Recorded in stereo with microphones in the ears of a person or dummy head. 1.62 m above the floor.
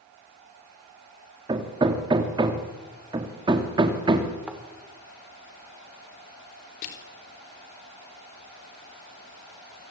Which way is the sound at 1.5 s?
20° right (ahead or behind).